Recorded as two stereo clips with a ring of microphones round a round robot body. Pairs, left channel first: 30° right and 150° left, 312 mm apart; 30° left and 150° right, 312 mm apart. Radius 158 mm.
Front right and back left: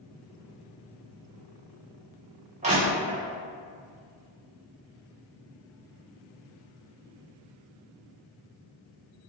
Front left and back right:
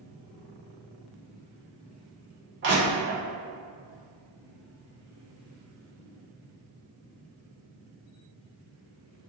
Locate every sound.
2.6 s crushing: 155° right, 1.2 m